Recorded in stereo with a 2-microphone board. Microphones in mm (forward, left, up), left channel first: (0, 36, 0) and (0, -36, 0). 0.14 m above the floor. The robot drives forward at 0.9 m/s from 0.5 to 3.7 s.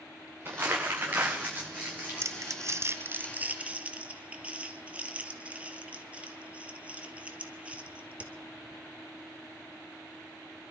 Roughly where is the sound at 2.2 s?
Right.